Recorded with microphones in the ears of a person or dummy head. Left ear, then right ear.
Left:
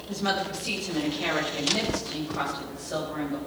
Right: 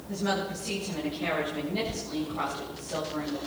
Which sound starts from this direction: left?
A woman speaking, at 0.1 s.